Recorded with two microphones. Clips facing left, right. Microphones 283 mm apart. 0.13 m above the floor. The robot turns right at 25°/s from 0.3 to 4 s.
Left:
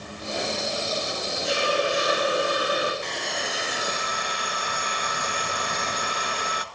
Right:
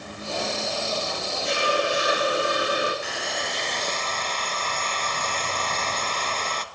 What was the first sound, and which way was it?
A hiss, 175° left.